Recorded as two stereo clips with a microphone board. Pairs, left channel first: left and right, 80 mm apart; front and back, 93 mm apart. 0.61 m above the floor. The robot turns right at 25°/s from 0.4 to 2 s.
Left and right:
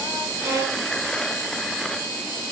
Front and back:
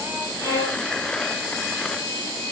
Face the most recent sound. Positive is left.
turn(degrees=-15)